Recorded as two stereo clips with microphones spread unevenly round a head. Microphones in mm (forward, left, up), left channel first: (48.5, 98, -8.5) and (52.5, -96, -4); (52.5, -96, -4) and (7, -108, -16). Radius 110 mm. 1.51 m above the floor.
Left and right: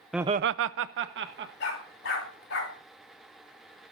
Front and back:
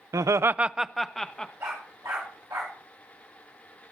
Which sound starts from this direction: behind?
Laughter, at 0.1 s.